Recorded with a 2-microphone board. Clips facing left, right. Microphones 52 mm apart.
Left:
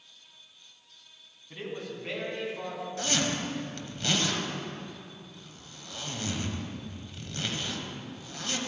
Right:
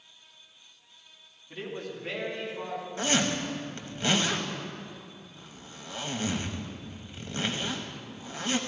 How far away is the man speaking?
About 2.5 m.